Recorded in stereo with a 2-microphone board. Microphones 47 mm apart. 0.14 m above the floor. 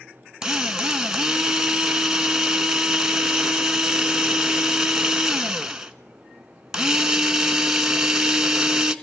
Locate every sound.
0.4 s a drill: 15° right (ahead or behind), 1.2 m